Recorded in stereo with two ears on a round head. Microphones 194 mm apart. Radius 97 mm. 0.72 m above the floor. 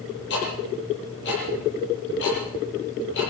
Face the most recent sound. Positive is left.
turn(degrees=55)  # may be behind; listen again after turning